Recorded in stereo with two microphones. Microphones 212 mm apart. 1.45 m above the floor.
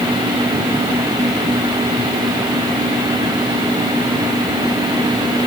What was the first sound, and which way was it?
Only background noise.